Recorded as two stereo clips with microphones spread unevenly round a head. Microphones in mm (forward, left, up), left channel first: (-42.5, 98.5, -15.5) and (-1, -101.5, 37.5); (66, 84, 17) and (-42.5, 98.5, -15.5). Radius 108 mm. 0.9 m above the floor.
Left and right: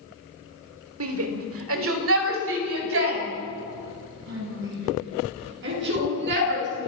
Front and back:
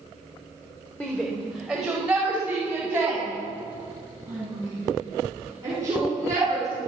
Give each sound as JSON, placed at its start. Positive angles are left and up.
{"t": 1.0, "sound": "a shout", "azimuth_deg": -95, "distance_m": 3.0}